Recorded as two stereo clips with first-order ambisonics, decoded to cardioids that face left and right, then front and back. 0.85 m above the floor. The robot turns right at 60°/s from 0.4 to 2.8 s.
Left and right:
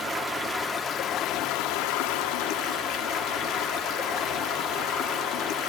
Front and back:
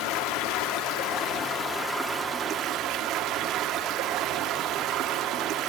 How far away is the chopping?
I don't hear chopping.